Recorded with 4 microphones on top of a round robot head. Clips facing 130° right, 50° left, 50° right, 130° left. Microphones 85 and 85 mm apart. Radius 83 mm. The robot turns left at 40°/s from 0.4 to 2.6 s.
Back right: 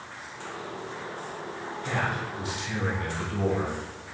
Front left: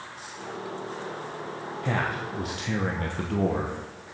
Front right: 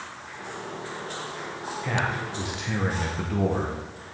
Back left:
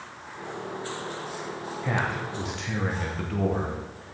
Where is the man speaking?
60° left, 1.0 m; by 4.0 s 30° left, 1.0 m.